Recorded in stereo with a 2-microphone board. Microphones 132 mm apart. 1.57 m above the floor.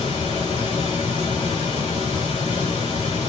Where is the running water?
80° left, 3 m.